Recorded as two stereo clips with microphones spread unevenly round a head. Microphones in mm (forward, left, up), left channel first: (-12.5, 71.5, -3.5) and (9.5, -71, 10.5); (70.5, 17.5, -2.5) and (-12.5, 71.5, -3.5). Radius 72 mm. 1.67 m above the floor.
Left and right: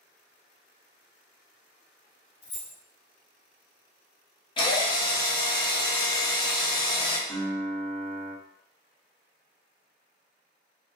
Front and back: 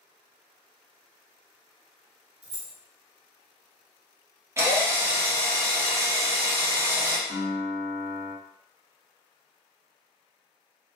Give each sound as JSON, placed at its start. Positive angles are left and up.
{"t": 2.4, "sound": "keys jangling", "azimuth_deg": 130, "distance_m": 1.3}
{"t": 4.6, "sound": "a drill", "azimuth_deg": 120, "distance_m": 0.7}
{"t": 7.3, "sound": "a piano", "azimuth_deg": 175, "distance_m": 2.0}